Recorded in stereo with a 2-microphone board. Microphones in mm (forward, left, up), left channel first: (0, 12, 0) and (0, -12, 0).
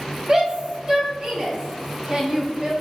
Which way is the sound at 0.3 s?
30° right (ahead or behind).